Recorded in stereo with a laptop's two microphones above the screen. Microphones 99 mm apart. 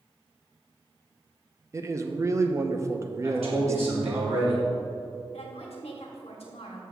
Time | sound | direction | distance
1.7 | a man speaking | 30° right (ahead or behind) | 0.6 m
3.2 | a man speaking | 80° right | 2.5 m
5.3 | a woman speaking | 80° left | 1.3 m